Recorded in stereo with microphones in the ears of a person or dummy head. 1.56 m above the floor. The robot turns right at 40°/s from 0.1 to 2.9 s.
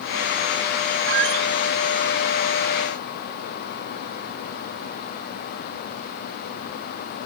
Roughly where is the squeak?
Right.